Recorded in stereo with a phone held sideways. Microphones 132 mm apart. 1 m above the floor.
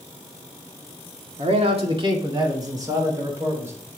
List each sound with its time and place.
1.4 s a man speaking: 55° right (ahead or behind), 1.8 m; by 3.9 s 15° right (ahead or behind), 4 m